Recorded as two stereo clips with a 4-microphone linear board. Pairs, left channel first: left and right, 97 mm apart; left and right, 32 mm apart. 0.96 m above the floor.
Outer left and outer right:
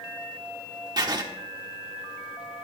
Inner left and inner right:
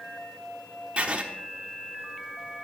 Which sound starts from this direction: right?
Writing, at 1.0 s.